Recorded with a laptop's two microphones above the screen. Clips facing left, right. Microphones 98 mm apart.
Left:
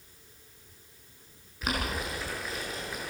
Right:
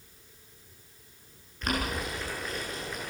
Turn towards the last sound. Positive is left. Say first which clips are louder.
# right 1 dB
turn(degrees=5)  # may be behind; listen again after turning